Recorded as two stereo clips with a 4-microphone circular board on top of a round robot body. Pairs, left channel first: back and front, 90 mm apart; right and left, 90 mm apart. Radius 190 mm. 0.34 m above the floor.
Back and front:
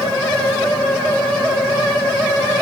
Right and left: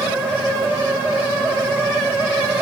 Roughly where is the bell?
I don't hear a bell.